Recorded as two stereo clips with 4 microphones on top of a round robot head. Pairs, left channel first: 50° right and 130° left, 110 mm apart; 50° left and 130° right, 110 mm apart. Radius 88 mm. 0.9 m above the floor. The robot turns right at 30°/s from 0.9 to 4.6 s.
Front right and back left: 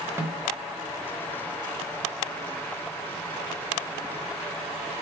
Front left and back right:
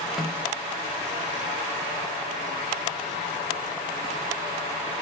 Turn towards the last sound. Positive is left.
turn(degrees=-105)